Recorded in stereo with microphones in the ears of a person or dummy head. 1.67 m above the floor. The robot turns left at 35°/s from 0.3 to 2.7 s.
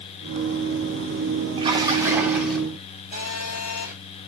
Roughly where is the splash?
Behind right.